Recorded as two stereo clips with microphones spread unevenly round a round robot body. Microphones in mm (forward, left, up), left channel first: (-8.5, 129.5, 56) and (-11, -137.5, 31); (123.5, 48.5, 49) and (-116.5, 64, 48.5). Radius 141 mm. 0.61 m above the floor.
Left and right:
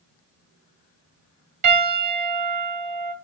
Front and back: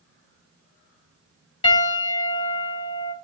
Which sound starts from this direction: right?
A piano, at 1.6 s.